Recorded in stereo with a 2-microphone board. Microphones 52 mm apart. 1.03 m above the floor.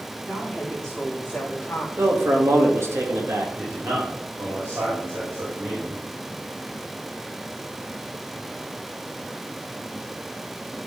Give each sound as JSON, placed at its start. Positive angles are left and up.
{"t": 0.3, "sound": "a woman speaking", "side_deg": -10, "distance_m": 2.5}
{"t": 2.0, "sound": "a man speaking", "side_deg": -55, "distance_m": 1.8}
{"t": 3.6, "sound": "a man speaking", "side_deg": -55, "distance_m": 3.0}